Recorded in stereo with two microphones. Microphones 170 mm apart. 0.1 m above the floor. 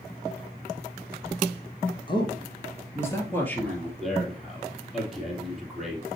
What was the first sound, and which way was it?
A man speaking, 30° left (ahead or behind).